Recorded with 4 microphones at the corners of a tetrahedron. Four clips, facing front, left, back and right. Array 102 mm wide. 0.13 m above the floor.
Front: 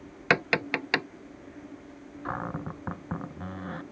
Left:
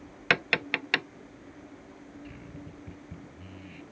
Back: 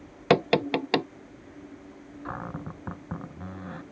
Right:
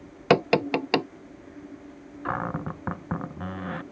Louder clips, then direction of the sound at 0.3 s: Right 7 dB, back 4 dB; 125° right.